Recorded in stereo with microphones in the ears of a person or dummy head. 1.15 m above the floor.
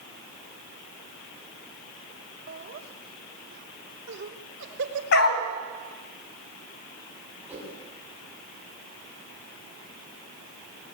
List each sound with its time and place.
2.5 s laughter: 50° right (ahead or behind), 2 m; by 5.0 s 65° right (ahead or behind), 3.5 m
5.1 s a dog barking: 65° left (ahead or behind), 3 m
7.5 s a whoosh: 5° right (ahead or behind), 8.5 m